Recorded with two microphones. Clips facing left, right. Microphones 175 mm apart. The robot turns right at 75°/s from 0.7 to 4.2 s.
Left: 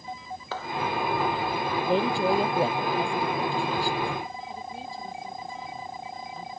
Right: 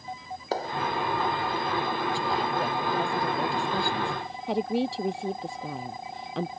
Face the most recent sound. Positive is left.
turn(degrees=-85)